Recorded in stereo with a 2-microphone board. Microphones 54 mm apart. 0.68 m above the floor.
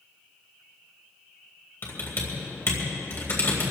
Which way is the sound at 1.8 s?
45° left (ahead or behind).